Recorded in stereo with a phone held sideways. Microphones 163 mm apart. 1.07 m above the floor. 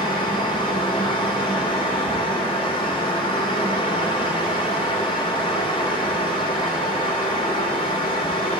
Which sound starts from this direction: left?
A fan, at 0.0 s.